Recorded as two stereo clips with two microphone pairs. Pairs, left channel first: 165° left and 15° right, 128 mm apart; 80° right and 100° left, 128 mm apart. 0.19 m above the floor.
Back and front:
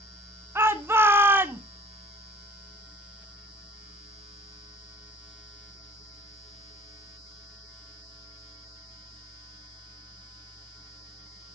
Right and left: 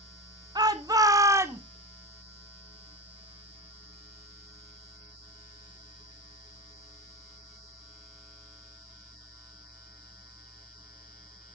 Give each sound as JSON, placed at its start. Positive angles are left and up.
{"t": 0.6, "sound": "a shout", "azimuth_deg": 55, "distance_m": 1.8}